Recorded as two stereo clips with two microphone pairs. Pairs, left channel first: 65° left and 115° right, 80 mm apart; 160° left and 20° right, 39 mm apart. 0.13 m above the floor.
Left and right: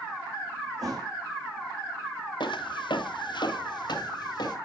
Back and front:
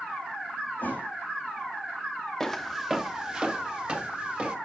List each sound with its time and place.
0.8 s a thud: 155° right, 2.5 m
2.4 s footsteps: 75° left, 0.9 m; by 4.6 s 30° left, 2.5 m